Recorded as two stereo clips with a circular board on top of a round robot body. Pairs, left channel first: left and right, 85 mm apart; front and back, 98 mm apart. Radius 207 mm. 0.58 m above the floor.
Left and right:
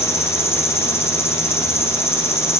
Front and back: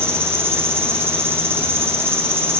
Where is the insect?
125° left, 1.9 m.